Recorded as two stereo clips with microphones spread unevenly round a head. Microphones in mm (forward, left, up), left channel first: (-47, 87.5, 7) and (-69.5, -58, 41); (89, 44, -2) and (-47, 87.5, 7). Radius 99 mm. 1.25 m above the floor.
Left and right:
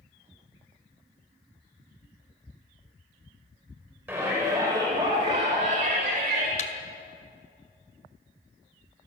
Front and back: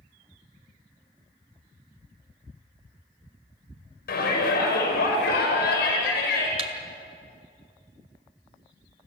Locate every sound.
4.1 s a shout: 20° right, 6 m; by 6.5 s 55° right, 6 m
6.6 s a thud: 120° left, 2 m